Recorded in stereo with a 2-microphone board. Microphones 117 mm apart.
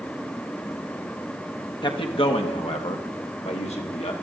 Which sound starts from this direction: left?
A man speaking, at 1.8 s.